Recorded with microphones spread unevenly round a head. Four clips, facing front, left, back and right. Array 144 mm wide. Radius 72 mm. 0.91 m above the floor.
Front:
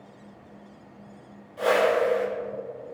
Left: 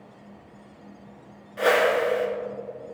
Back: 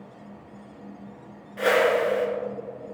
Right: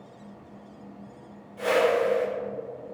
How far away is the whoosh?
About 4 m.